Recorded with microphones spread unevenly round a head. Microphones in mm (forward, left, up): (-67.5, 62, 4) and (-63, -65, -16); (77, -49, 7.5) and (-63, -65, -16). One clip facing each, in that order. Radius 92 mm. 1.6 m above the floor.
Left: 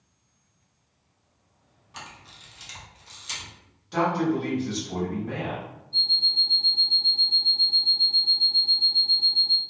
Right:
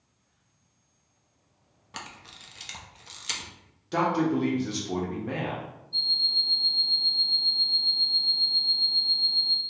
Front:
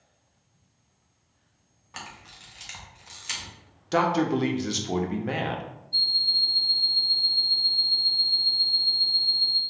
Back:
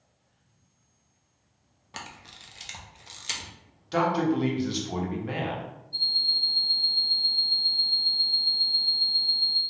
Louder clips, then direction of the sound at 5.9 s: Left 2 dB, front 1 dB; 25° left.